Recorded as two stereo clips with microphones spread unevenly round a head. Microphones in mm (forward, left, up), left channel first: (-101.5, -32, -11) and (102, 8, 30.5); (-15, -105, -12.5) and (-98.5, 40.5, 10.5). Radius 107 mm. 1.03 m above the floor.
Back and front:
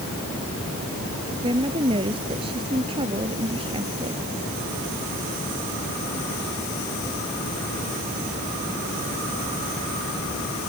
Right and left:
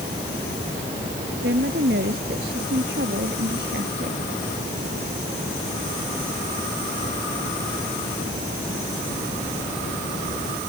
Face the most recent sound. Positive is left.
turn(degrees=75)